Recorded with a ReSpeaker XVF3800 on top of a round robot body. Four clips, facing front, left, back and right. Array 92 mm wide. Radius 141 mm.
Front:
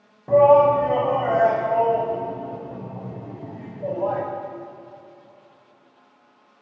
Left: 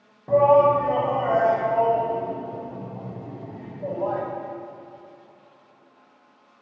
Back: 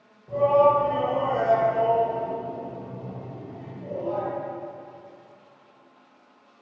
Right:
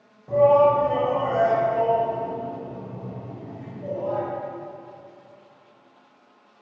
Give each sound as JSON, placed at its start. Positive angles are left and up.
{"t": 0.3, "sound": "a shout", "azimuth_deg": 35, "distance_m": 4.5}